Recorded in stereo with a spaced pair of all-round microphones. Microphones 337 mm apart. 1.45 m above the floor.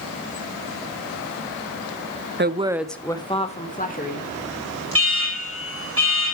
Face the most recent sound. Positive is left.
turn(degrees=-40)  # may be behind; listen again after turning